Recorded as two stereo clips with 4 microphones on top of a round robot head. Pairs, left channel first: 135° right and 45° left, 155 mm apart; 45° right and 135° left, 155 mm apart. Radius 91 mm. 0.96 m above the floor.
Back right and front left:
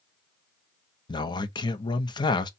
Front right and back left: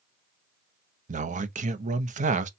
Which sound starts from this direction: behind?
A man speaking, at 1.1 s.